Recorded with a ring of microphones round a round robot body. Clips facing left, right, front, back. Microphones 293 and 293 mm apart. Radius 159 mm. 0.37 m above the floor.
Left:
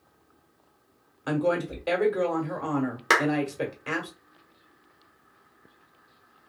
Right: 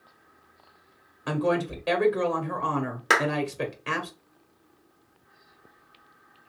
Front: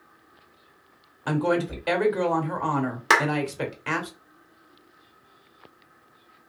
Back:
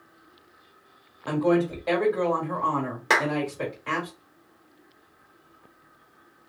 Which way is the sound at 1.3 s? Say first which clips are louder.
Even, back 2 dB; 5° right.